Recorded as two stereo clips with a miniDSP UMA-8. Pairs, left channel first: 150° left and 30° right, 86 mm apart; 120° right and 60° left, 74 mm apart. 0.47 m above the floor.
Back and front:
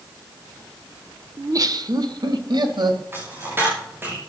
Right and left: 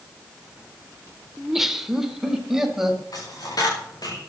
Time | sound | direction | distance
1.4 | laughter | 25° right | 1.1 m
3.1 | a dropped coin | 95° right | 5.5 m